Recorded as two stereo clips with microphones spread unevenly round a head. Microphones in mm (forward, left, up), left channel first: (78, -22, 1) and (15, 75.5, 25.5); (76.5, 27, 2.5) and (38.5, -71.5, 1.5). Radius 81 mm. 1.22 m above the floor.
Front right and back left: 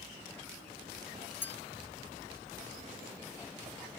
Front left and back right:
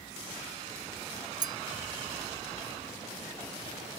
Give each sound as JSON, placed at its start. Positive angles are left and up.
{"t": 1.4, "sound": "a clink", "azimuth_deg": -140}